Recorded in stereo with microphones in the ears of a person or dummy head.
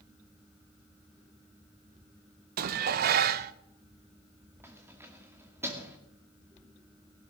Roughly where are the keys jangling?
Centre.